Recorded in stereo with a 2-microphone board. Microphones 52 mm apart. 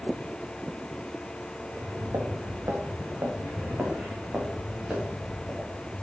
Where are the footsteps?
85° right, 3.5 m; by 6.0 s centre (ahead or behind), 5.5 m.